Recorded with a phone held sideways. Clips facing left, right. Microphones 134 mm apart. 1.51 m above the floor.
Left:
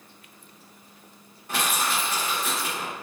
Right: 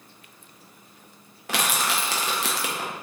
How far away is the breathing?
I don't hear breathing.